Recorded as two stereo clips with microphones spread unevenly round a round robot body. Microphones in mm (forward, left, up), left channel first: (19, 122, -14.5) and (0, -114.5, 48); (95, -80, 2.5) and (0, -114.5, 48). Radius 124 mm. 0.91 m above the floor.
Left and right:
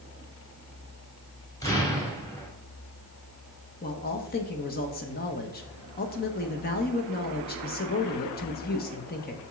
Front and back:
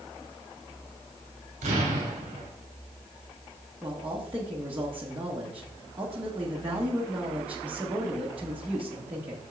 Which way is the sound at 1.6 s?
160° left.